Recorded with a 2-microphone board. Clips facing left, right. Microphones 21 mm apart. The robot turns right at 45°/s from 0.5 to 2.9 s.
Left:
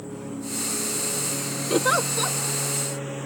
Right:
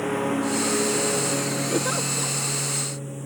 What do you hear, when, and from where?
0.0 s a lawn mower: 70° right; by 3.3 s 35° left
1.7 s a giggle: 30° left (ahead or behind); by 2.4 s 45° left (ahead or behind)